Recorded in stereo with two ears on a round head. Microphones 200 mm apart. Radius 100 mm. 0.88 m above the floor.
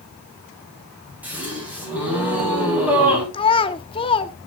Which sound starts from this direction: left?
A child speaking, at 3.3 s.